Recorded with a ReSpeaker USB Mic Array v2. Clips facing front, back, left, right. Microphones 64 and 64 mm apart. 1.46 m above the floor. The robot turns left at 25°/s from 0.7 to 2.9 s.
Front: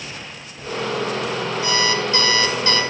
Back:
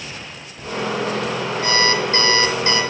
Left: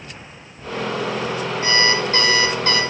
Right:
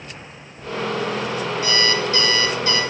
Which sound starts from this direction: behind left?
An alarm clock, at 1.6 s.